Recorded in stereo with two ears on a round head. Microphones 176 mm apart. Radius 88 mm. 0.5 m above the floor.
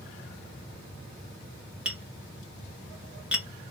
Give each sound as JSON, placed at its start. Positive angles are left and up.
{"t": 1.9, "sound": "tapping", "side_deg": -5, "distance_m": 1.7}